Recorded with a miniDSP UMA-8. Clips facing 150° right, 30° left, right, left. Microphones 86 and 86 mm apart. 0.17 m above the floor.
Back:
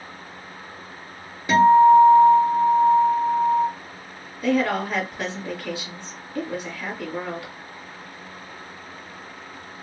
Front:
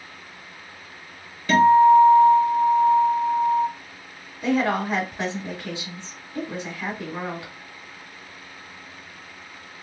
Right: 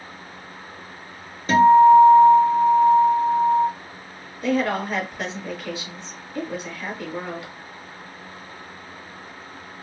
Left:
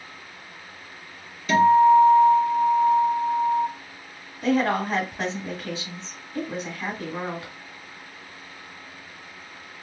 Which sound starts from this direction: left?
A woman speaking, at 4.4 s.